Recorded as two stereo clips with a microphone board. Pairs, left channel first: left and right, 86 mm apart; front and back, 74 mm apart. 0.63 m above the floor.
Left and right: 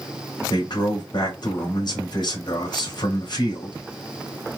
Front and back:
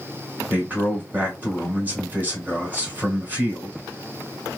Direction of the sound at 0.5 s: 115° left.